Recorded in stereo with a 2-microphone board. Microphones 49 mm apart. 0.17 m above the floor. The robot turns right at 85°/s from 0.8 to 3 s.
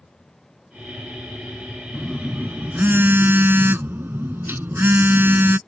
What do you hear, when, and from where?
1.9 s a phone buzzing: 175° right; by 5.6 s 85° right